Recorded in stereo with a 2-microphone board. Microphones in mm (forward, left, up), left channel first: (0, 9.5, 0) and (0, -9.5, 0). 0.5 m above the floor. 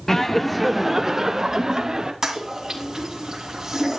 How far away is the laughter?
About 0.8 m.